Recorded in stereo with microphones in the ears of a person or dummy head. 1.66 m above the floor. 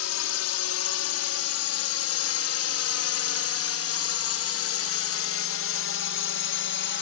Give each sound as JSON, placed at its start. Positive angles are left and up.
{"t": 0.0, "sound": "a drone", "side_deg": 70}